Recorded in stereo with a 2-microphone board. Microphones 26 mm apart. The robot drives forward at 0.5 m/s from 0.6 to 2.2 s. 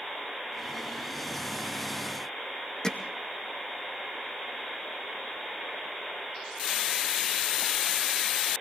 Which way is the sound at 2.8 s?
20° left (ahead or behind).